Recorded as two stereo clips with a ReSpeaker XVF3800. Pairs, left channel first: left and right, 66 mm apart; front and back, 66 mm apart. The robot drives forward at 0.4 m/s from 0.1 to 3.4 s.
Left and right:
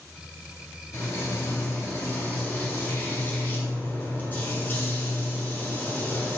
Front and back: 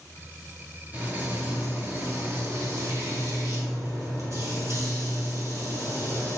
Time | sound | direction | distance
0.9 | frying | 120° left | 1.4 m